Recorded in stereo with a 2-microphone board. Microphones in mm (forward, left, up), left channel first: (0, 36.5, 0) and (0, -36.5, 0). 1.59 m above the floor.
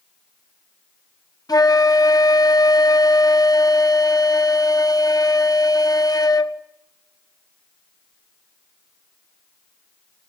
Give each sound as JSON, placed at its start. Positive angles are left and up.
{"t": 1.5, "sound": "a flute", "side_deg": 60, "distance_m": 1.4}